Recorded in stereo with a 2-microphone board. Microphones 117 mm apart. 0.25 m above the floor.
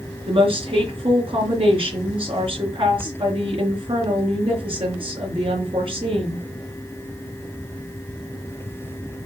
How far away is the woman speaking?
About 4 m.